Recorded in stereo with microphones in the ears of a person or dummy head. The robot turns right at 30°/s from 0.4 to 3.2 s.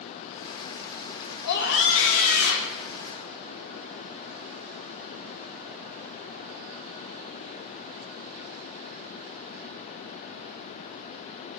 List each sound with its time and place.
1.4 s a scream: 55° left, 2.5 m; by 2.8 s 95° left, 2.5 m